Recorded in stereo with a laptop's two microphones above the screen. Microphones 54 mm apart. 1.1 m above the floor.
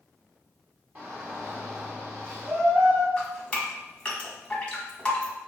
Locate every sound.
0.9 s a shout: 35° right (ahead or behind), 0.6 m
3.2 s dripping: 20° left (ahead or behind), 1.4 m